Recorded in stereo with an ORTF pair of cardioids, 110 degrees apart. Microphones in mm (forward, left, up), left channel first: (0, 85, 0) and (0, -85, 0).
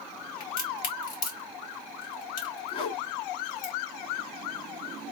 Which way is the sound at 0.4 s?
60° left.